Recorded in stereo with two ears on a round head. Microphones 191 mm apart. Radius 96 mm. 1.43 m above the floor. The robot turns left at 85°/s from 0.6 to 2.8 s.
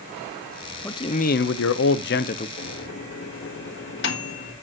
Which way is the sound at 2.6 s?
40° left (ahead or behind).